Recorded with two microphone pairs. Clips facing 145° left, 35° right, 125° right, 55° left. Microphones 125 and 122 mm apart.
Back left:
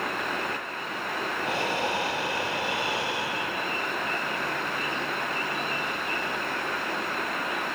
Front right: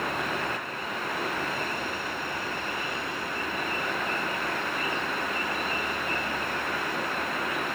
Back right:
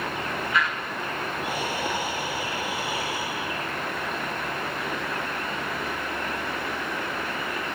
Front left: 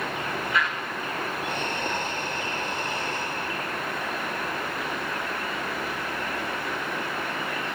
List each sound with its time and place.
1.4 s breathing: 155° left